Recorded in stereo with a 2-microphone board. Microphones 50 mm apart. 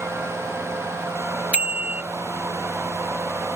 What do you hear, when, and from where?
1.5 s a bicycle bell: 25° right (ahead or behind)